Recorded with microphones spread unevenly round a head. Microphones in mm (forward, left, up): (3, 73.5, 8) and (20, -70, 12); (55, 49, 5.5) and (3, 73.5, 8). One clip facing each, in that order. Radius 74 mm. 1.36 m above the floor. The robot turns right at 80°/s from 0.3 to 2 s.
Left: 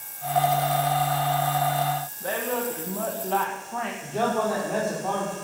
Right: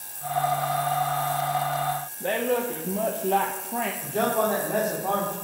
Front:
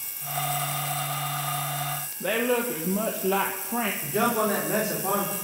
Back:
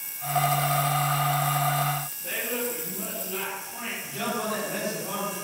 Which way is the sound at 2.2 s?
15° right.